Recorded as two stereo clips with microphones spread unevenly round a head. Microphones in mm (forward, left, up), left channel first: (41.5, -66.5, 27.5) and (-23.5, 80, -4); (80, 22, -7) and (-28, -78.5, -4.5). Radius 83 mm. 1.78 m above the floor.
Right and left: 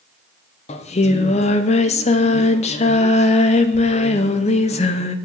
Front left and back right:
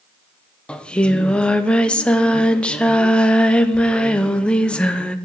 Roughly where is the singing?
Ahead right.